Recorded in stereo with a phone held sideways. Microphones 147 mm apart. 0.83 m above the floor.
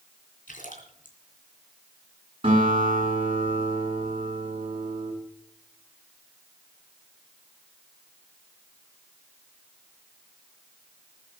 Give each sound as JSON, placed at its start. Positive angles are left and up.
{"t": 0.5, "sound": "a splash", "side_deg": 65, "distance_m": 3.0}
{"t": 2.4, "sound": "a guitar", "side_deg": -40, "distance_m": 10.0}